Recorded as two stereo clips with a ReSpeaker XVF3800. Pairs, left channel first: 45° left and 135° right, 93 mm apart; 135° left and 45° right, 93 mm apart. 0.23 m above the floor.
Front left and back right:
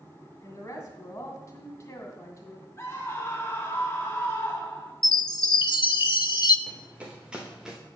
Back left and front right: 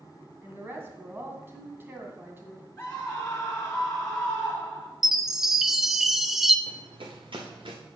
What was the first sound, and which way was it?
A woman speaking, 5° left.